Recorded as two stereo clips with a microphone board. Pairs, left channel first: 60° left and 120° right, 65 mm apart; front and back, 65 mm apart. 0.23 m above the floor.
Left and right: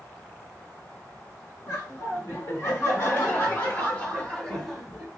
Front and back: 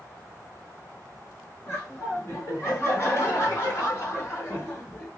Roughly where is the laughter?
Ahead left.